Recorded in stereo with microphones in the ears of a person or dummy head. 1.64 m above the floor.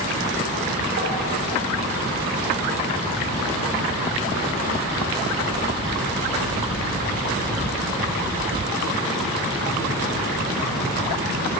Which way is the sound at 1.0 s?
55° right (ahead or behind).